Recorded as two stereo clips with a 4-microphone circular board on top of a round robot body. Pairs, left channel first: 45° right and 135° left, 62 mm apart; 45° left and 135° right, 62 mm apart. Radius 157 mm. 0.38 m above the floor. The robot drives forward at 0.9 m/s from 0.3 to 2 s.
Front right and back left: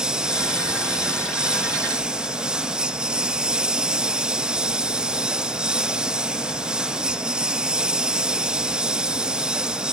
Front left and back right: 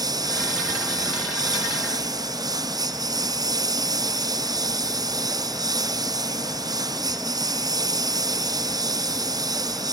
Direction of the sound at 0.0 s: 150° right.